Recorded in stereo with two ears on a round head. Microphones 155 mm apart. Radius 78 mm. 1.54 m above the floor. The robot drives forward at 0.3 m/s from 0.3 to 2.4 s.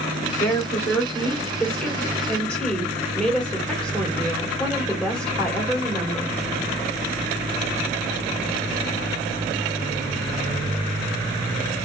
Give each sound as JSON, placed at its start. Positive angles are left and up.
{"t": 0.4, "sound": "a woman speaking", "side_deg": 10, "distance_m": 1.4}